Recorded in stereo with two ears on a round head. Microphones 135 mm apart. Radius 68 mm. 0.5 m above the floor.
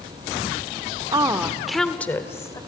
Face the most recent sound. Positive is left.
turn(degrees=25)  # may be behind; listen again after turning